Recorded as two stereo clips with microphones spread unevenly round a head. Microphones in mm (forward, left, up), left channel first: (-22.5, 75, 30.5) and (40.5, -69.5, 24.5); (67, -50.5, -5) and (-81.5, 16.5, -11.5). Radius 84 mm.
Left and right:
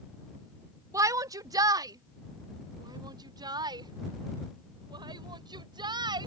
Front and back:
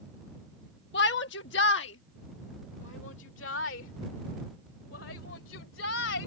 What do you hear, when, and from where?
0.9 s a shout: straight ahead; by 6.3 s 5° right